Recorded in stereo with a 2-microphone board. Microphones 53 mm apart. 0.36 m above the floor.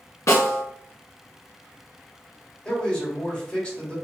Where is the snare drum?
80° left, 1.0 m.